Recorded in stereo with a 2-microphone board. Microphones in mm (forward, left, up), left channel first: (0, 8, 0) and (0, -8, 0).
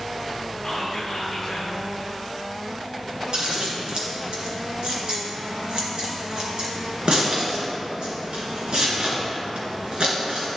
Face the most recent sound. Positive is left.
turn(degrees=-60)  # may be behind; listen again after turning